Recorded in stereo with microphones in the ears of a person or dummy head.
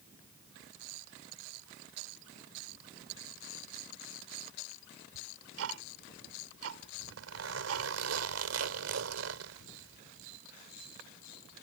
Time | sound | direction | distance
5.1 | ticking | 85° right | ?
6.9 | a zipper | 80° right | ?